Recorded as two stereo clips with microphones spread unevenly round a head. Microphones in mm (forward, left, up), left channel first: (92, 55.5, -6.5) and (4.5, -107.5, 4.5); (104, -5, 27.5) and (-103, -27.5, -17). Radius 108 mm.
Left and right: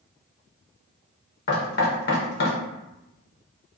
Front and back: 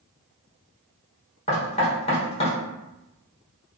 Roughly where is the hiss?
No hiss in this recording.